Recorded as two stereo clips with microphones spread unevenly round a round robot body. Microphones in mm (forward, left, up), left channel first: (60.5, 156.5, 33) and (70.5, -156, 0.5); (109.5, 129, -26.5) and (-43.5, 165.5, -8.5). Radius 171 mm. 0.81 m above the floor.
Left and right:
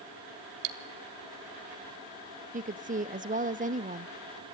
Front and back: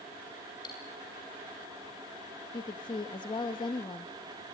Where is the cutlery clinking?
90° right, 1.2 m.